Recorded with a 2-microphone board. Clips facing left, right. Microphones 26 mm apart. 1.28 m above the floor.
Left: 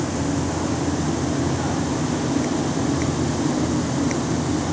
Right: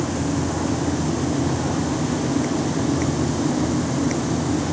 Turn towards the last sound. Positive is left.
No sound to turn to.